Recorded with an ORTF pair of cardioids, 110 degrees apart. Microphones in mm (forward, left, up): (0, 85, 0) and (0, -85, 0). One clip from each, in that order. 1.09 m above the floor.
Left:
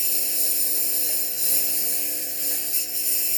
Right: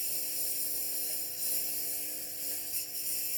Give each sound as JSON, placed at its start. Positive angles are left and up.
{"t": 0.0, "sound": "a lawn mower", "azimuth_deg": 60}